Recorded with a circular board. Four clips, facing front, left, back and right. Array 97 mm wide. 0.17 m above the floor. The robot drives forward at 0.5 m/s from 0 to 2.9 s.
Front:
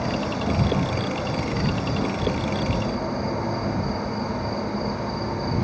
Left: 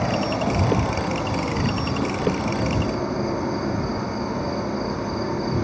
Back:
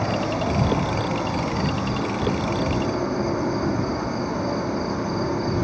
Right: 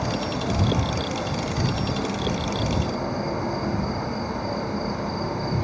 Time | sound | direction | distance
0.0 | an insect | 120° left | 0.9 m